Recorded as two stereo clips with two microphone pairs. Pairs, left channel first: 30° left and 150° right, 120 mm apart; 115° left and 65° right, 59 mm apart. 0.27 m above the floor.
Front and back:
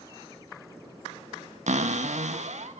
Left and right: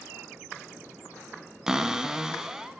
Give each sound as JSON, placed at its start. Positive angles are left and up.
{"t": 1.7, "sound": "a cupboard door", "azimuth_deg": -145, "distance_m": 0.6}